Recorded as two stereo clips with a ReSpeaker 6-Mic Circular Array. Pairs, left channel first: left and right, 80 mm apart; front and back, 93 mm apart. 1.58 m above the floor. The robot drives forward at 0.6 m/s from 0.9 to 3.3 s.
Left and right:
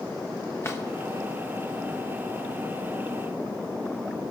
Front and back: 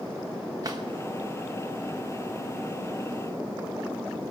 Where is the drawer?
140° left, 1.2 m.